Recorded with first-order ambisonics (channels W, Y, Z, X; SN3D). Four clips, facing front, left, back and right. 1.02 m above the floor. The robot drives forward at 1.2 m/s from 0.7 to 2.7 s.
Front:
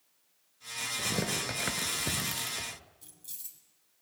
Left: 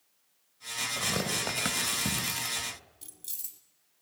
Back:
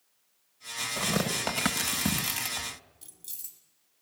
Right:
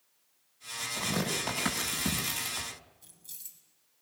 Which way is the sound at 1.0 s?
165° left.